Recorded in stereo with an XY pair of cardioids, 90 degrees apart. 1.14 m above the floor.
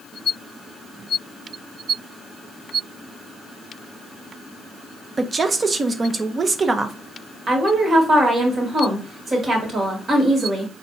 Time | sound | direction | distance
5.2 | a woman speaking | 40° right | 0.6 m
7.5 | a woman speaking | 50° right | 1.6 m